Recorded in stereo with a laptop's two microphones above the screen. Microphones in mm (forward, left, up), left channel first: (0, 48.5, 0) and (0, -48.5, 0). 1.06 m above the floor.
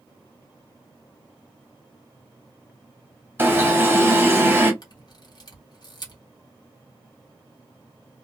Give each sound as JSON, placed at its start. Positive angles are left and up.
{"t": 3.4, "sound": "an alarm", "side_deg": -25, "distance_m": 0.9}
{"t": 4.8, "sound": "a camera shutter", "side_deg": 45, "distance_m": 1.2}